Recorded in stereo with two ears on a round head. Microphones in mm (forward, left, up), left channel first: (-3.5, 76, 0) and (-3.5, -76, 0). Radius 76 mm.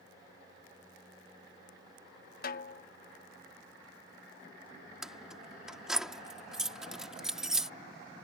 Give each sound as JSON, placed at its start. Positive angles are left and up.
{"t": 2.4, "sound": "a snare drum", "side_deg": 55}
{"t": 5.0, "sound": "keys jangling", "side_deg": -5}